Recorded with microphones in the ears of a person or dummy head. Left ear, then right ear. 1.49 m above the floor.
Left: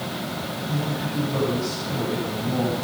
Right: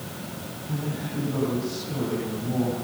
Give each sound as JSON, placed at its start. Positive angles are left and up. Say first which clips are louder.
{"t": 0.7, "sound": "a man speaking", "louder": "left 3 dB", "side_deg": 15, "distance_m": 10.0}